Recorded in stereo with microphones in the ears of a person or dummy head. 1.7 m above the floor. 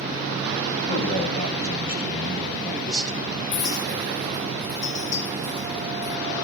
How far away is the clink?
About 1.6 m.